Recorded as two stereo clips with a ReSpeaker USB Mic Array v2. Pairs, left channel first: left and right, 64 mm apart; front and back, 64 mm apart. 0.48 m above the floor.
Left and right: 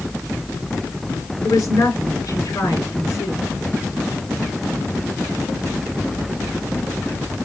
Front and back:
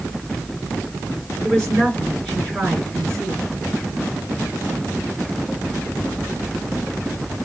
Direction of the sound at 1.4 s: 80° left.